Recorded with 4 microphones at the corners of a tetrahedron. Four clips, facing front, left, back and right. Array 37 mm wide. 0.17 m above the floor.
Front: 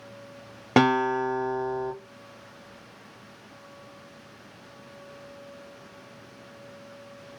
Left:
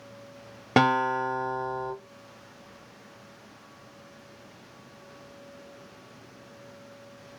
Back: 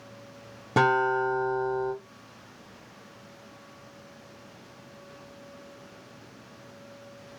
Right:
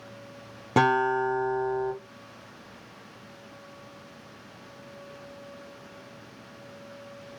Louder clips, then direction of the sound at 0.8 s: Even, front 1 dB; 35° left.